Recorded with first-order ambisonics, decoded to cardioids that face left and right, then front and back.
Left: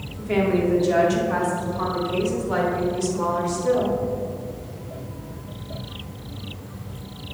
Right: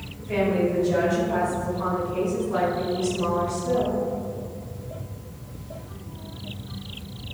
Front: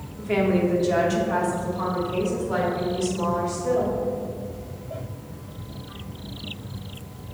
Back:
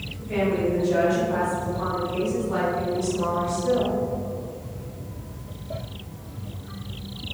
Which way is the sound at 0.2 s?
30° left.